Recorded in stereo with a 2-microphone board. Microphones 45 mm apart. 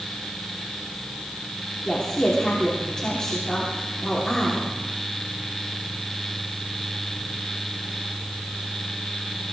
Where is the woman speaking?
15° left (ahead or behind), 3 m.